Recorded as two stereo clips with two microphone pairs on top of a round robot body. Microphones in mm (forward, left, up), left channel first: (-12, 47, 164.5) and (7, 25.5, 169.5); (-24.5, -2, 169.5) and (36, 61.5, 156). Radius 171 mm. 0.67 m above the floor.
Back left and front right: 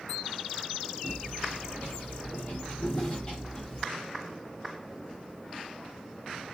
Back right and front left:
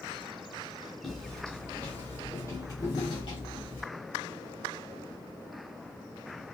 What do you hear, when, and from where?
1.0 s footsteps: 140° left, 1.4 m; by 3.9 s 140° right, 1.3 m